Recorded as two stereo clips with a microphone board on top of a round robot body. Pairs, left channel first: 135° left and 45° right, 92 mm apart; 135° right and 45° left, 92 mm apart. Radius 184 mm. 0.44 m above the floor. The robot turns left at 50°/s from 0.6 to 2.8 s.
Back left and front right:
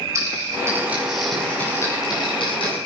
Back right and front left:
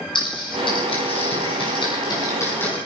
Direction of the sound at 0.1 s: 105° right.